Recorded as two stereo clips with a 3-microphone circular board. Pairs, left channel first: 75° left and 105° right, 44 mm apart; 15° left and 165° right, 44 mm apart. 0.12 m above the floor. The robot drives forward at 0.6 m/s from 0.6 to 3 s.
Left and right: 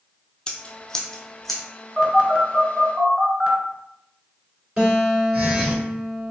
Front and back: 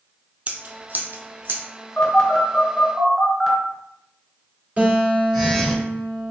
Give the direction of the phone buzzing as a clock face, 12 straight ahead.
1 o'clock.